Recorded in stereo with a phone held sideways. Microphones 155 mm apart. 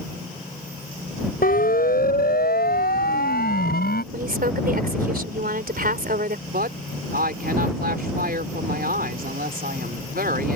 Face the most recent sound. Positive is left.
turn(degrees=-80)